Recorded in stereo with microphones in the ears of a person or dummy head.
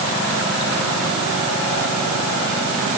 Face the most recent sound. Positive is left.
No sound to turn to.